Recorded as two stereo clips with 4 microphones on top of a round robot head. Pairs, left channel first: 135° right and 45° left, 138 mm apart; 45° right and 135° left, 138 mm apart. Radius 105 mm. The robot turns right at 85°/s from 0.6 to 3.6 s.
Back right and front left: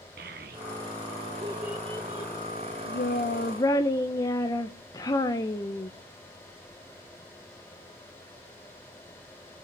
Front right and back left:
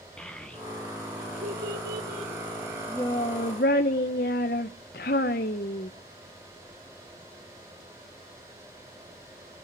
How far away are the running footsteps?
No running footsteps in this recording.